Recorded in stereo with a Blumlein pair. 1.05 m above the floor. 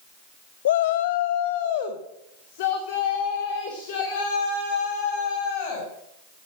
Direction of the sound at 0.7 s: 60° left.